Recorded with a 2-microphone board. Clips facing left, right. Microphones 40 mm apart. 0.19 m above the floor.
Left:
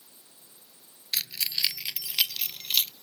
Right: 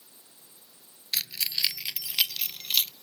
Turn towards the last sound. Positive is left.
turn(degrees=-5)  # may be behind; listen again after turning